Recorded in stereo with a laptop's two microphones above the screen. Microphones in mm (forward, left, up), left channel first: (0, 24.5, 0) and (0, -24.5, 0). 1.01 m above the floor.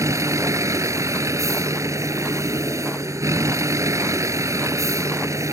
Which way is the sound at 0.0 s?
85° right.